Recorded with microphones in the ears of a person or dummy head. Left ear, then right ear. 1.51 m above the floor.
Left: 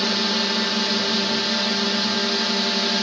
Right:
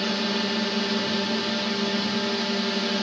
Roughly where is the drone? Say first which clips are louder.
Left 5 dB; left.